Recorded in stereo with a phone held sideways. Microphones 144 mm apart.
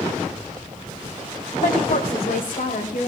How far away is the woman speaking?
About 1.8 m.